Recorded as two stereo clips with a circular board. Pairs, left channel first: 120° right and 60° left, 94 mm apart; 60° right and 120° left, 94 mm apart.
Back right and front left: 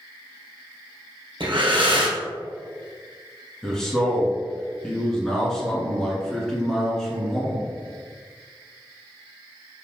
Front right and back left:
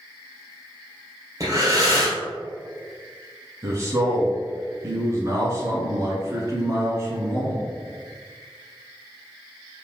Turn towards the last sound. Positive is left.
turn(degrees=155)